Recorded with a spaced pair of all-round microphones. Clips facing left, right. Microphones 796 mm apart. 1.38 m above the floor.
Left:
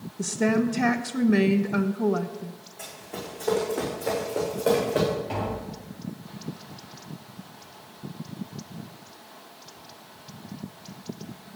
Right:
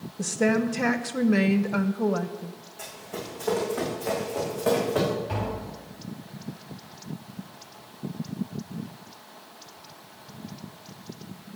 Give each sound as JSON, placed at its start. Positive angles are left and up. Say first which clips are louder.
{"t": 0.2, "sound": "a woman speaking", "louder": "even", "side_deg": -10, "distance_m": 0.8}
{"t": 2.8, "sound": "running footsteps", "louder": "right 1 dB", "side_deg": -40, "distance_m": 6.0}
{"t": 5.3, "sound": "tapping", "louder": "left 1 dB", "side_deg": -45, "distance_m": 6.5}